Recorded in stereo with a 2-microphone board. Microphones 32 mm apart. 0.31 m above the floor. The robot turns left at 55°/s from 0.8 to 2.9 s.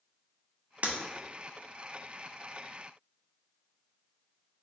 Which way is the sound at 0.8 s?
55° right (ahead or behind).